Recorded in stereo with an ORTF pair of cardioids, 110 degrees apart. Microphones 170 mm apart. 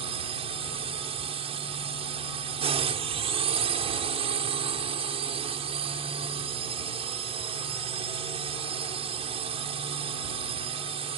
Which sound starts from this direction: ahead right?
A drone, at 0.0 s.